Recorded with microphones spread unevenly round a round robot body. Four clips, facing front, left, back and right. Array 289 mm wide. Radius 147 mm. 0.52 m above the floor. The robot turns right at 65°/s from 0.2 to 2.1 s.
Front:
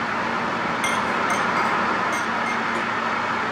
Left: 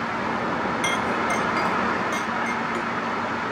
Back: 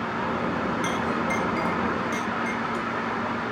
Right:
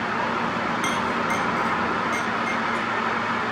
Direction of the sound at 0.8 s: 35° left.